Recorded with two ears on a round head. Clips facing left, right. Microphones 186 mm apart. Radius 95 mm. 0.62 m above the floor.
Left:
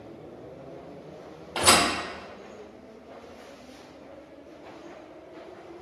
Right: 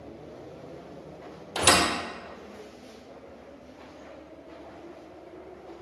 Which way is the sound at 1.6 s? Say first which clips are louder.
Left 1 dB; 35° right (ahead or behind).